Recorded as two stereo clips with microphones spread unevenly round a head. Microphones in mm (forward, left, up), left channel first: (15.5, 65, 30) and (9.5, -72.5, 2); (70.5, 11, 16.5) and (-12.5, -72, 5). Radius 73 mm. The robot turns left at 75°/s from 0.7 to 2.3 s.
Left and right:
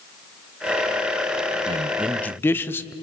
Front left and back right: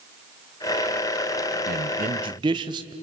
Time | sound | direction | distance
1.7 | a man speaking | 150° right | 0.7 m